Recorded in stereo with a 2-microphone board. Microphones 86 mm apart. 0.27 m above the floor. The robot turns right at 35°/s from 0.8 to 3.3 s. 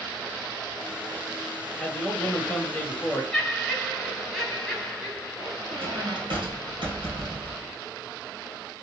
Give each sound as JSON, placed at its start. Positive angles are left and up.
{"t": 1.8, "sound": "a man speaking", "side_deg": 10, "distance_m": 1.0}
{"t": 3.3, "sound": "laughter", "side_deg": 5, "distance_m": 1.6}
{"t": 5.7, "sound": "a squeak", "side_deg": -80, "distance_m": 2.0}